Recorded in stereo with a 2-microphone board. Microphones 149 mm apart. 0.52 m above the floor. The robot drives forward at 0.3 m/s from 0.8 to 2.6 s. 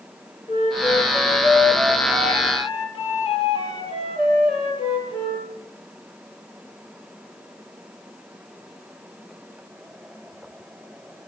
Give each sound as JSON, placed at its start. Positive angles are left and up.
{"t": 0.5, "sound": "a flute", "side_deg": 35, "distance_m": 7.5}